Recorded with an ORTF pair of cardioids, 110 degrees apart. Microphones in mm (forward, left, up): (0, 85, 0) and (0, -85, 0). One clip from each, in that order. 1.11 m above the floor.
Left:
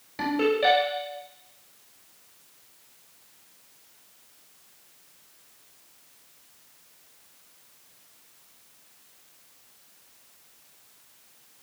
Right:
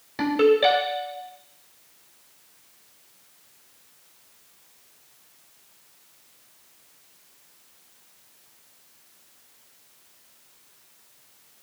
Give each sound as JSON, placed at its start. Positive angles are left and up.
{"t": 0.2, "sound": "a ringtone", "azimuth_deg": -35, "distance_m": 3.0}